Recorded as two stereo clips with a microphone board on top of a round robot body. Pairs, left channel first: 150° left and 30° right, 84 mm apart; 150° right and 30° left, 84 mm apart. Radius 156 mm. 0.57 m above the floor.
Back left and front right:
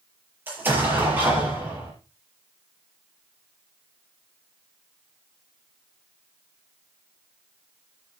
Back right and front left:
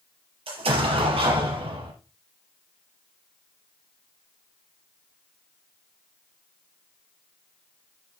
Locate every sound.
0.5 s an explosion: 40° left, 4.5 m